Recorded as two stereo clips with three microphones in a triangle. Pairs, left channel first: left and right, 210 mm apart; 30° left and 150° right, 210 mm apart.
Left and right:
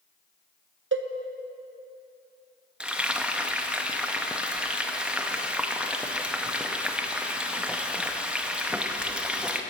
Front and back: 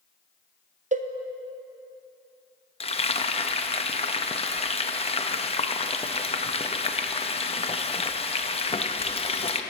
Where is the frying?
10° right, 0.5 m.